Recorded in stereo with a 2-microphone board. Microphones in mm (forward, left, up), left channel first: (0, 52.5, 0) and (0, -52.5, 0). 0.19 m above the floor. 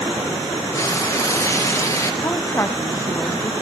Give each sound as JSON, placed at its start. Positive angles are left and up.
{"t": 0.7, "sound": "frying", "side_deg": 30, "distance_m": 3.5}
{"t": 2.2, "sound": "a woman speaking", "side_deg": 25, "distance_m": 1.2}